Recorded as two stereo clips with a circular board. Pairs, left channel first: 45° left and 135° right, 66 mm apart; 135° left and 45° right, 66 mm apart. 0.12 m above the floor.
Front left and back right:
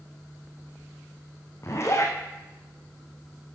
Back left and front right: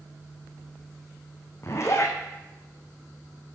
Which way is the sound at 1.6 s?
90° left.